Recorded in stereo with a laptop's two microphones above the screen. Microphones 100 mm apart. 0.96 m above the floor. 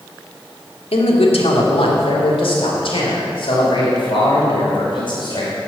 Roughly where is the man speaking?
Left.